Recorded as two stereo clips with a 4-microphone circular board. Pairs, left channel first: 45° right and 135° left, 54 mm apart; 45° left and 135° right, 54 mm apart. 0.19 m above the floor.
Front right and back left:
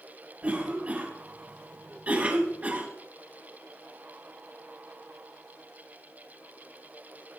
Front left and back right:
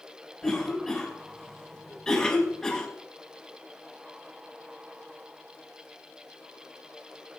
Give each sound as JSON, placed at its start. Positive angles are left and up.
{"t": 0.4, "sound": "a cough", "azimuth_deg": 115, "distance_m": 1.5}